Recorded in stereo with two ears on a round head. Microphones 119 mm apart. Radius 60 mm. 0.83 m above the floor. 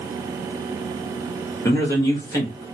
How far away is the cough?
I don't hear a cough.